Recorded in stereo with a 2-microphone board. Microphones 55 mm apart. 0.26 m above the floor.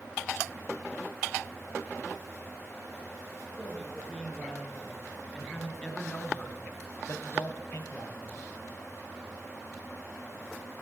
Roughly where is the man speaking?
Centre.